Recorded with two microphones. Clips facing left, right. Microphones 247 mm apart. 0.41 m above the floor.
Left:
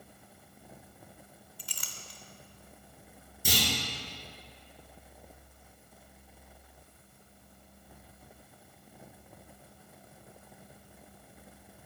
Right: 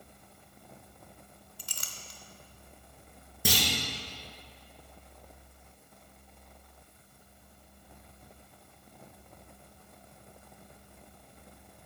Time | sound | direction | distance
1.6 | a clink | 45° right (ahead or behind) | 0.8 m
3.5 | a clunk | 75° right (ahead or behind) | 3 m